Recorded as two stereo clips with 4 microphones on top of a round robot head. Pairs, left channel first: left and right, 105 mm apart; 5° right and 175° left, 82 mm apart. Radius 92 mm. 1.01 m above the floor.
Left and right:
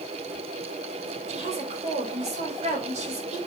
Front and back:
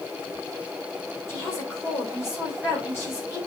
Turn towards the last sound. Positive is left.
turn(degrees=-70)